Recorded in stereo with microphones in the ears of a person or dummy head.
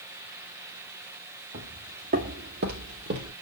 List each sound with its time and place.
1.5 s footsteps: 50° right (ahead or behind), 3 m; by 3.3 s 45° right (ahead or behind), 1.7 m